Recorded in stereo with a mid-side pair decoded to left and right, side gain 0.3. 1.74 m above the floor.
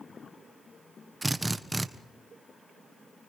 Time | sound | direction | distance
1.2 | a drill | 15° right | 1.3 m